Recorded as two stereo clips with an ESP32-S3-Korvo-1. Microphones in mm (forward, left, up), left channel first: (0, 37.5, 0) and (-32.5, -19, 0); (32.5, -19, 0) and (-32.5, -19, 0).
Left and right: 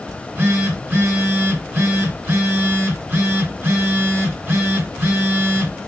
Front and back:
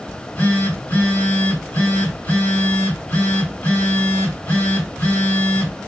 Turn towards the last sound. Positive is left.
turn(degrees=-65)